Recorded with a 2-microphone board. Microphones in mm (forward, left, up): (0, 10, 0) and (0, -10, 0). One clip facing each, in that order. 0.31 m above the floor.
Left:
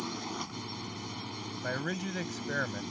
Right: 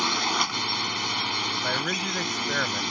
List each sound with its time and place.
0.0 s a drone: 50° right (ahead or behind)
1.6 s a man speaking: 20° right (ahead or behind)